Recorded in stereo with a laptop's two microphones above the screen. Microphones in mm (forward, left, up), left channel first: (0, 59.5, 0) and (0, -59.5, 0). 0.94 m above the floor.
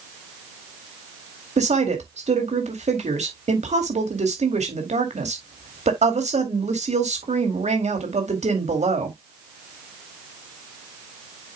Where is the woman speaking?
70° right (ahead or behind), 2 m.